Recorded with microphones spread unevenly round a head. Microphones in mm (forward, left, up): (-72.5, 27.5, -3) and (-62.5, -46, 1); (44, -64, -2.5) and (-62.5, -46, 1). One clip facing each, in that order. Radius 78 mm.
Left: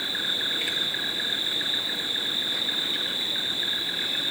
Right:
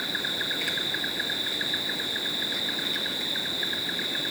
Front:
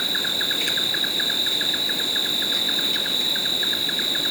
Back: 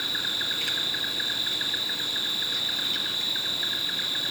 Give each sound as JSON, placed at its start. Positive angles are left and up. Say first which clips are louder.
{"t": 0.0, "sound": "an insect", "louder": "even, front 6 dB", "azimuth_deg": -10, "distance_m": 1.5}